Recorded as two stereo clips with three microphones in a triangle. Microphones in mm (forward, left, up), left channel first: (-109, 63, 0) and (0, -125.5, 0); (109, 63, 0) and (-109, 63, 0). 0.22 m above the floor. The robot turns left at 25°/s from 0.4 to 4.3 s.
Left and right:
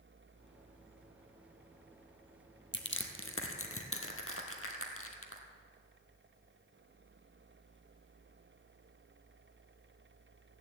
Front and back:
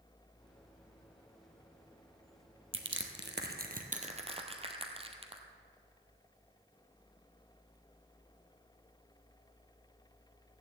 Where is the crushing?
155° left, 1.4 m; by 5.4 s 115° left, 1.4 m.